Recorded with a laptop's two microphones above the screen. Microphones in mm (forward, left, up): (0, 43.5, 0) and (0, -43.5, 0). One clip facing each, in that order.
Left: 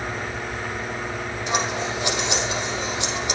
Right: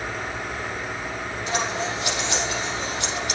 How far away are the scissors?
About 5.5 m.